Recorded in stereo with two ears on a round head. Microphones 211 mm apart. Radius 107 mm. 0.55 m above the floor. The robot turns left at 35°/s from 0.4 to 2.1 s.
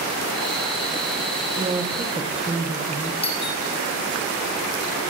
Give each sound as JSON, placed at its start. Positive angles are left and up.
{"t": 1.6, "sound": "a woman speaking", "side_deg": -20, "distance_m": 2.5}
{"t": 3.2, "sound": "a doorbell", "side_deg": 25, "distance_m": 5.5}